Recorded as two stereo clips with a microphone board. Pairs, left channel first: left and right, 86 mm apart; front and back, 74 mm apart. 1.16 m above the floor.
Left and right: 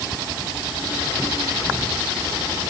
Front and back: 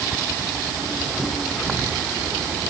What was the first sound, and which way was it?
Only background noise.